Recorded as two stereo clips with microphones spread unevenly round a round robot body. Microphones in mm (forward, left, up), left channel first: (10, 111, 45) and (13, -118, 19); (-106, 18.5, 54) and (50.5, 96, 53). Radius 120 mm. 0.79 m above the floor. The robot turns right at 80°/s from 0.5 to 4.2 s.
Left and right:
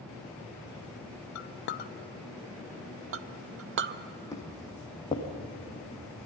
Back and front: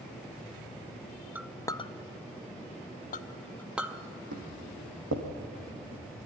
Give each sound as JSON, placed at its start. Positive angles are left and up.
{"t": 1.4, "sound": "a clink", "azimuth_deg": 105, "distance_m": 0.6}
{"t": 4.3, "sound": "footsteps", "azimuth_deg": 15, "distance_m": 3.0}